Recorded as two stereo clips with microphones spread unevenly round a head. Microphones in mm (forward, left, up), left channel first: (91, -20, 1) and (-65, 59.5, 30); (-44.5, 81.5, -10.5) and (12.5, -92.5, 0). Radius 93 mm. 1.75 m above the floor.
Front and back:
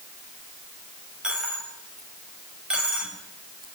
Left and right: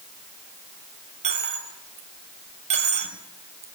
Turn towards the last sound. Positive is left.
turn(degrees=-125)